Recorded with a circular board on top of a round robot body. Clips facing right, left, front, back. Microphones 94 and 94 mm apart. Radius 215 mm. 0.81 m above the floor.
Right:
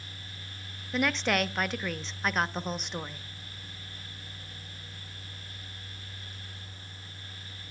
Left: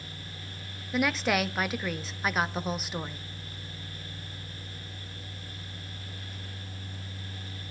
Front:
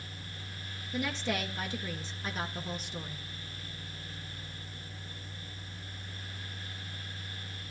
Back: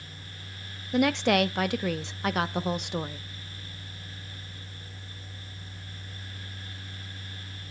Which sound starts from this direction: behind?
A woman speaking, at 0.9 s.